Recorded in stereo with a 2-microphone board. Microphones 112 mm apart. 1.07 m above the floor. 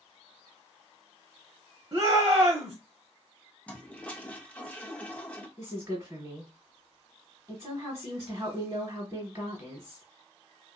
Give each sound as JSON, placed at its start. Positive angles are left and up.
{"t": 1.9, "sound": "a shout", "side_deg": -25, "distance_m": 0.8}
{"t": 3.7, "sound": "a toilet flushing", "side_deg": 10, "distance_m": 0.5}
{"t": 5.6, "sound": "a woman speaking", "side_deg": -25, "distance_m": 1.0}